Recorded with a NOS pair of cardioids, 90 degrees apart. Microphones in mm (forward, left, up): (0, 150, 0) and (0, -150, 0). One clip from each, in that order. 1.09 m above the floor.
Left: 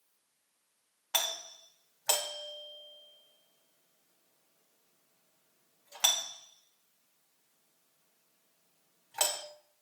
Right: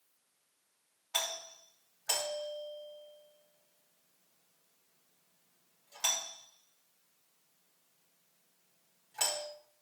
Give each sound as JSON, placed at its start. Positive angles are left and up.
{"t": 1.1, "sound": "a doorbell", "azimuth_deg": 60, "distance_m": 3.5}